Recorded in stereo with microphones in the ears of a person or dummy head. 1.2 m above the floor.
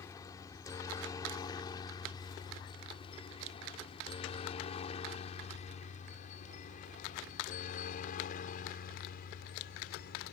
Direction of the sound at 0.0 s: 20° left (ahead or behind).